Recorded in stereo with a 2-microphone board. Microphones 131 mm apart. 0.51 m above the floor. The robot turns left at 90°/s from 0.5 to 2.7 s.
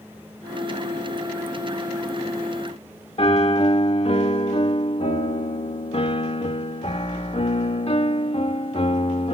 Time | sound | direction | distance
3.2 | a piano | 50° left (ahead or behind) | 0.8 m